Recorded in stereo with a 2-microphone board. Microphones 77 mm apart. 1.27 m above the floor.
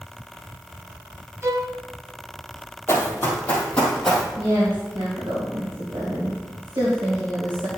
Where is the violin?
35° right (ahead or behind), 0.9 m.